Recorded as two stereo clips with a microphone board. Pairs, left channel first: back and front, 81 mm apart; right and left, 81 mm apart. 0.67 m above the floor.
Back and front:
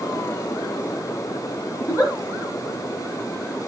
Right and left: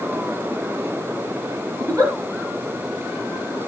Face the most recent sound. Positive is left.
turn(degrees=135)